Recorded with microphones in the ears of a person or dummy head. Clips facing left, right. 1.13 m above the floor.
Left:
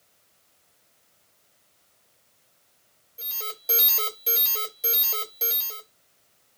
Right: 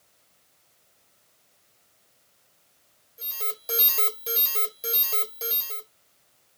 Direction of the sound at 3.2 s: Centre (ahead or behind).